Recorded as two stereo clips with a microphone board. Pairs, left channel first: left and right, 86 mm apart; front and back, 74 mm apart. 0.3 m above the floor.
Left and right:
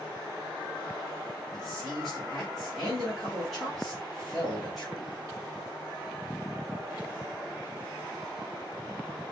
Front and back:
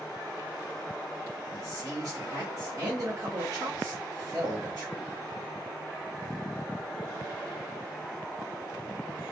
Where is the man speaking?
Straight behind, 2 m.